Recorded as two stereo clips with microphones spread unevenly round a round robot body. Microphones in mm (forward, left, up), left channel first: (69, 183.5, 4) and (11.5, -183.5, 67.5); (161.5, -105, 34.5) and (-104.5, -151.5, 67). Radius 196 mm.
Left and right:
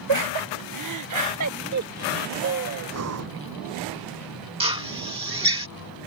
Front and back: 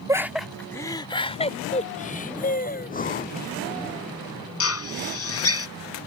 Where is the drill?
20° right.